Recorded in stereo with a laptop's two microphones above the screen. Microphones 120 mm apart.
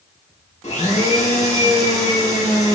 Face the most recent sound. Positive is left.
turn(degrees=65)  # may be behind; listen again after turning